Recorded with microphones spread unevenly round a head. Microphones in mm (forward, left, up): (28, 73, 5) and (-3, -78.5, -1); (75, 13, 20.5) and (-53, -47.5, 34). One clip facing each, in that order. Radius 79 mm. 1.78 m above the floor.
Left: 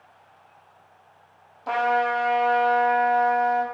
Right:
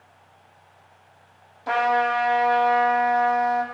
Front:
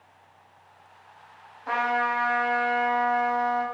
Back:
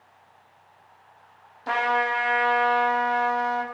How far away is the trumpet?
About 0.6 m.